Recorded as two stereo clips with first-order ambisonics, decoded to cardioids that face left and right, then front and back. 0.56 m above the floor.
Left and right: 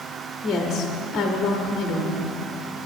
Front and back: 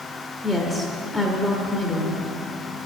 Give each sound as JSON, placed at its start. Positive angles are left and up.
{"t": 0.4, "sound": "a woman speaking", "azimuth_deg": 80, "distance_m": 0.8}